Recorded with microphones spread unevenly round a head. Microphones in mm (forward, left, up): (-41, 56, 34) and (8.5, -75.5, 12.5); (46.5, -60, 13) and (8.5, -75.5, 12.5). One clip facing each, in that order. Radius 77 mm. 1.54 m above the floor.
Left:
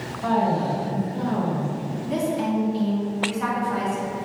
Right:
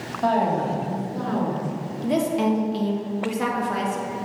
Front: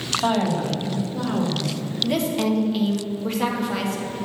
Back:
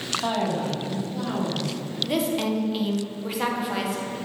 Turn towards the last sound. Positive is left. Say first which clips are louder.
# right 4 dB, front 2 dB
turn(degrees=-70)